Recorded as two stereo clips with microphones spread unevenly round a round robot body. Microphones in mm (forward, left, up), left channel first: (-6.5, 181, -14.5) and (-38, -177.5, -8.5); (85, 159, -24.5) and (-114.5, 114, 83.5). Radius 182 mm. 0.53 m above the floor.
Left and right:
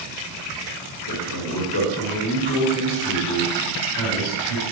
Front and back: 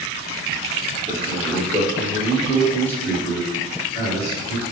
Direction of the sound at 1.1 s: 115° left.